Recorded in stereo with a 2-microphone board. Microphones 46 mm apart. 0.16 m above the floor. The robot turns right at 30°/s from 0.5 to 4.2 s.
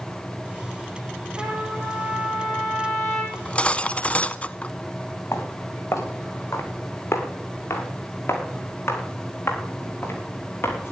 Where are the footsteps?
85° left, 5.5 m; by 10.9 s 55° left (ahead or behind), 6 m.